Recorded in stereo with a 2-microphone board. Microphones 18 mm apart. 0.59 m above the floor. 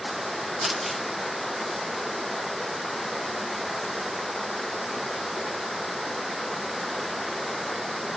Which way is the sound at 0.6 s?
Centre (ahead or behind).